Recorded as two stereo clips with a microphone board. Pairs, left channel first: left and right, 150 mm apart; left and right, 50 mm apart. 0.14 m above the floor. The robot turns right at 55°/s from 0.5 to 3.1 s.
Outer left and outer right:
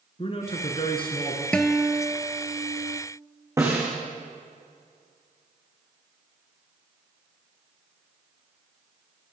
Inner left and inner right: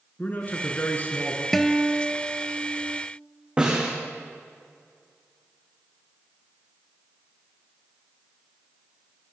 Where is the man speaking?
85° left, 1.7 m; by 1.4 s 140° left, 1.7 m.